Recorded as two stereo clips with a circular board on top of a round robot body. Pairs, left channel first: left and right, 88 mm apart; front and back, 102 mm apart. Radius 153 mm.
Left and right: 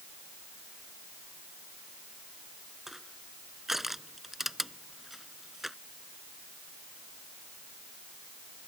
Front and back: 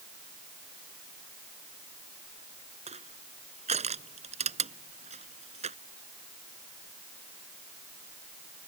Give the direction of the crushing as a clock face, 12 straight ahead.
6 o'clock.